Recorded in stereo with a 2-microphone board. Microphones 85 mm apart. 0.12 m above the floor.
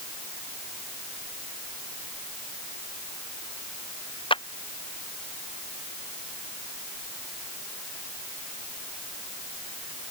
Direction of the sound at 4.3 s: 75° left (ahead or behind).